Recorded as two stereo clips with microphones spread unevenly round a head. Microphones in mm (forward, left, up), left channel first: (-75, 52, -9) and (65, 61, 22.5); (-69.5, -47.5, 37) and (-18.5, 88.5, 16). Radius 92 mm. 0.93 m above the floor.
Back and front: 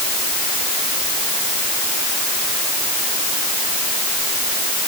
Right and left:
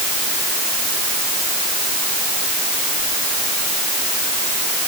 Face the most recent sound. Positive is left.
No sound to turn to.